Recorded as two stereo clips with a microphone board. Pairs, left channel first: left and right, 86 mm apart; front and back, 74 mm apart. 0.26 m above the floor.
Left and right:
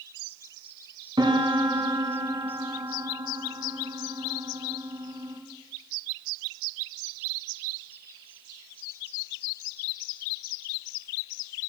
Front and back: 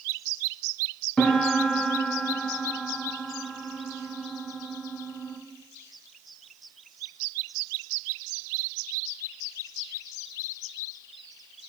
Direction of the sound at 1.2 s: 75° right.